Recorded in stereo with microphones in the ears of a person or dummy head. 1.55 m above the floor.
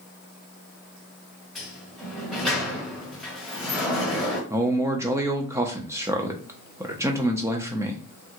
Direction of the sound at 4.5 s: 15° right (ahead or behind).